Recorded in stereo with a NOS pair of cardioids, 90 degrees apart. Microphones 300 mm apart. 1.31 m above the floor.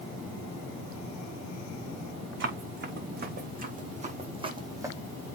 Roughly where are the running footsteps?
Ahead right.